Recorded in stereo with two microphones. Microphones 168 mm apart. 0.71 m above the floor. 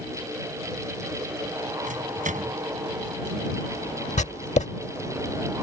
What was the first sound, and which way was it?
A microwave, 50° right (ahead or behind).